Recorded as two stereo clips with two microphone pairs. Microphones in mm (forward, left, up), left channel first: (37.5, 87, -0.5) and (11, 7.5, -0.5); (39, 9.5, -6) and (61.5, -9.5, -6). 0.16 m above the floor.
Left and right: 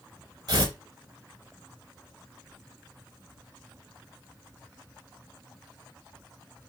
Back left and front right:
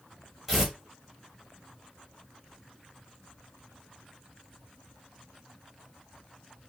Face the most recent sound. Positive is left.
turn(degrees=-120)